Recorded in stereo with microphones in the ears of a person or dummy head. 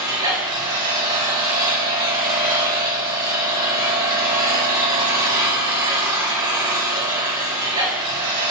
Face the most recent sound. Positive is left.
turn(degrees=-20)  # may be behind; listen again after turning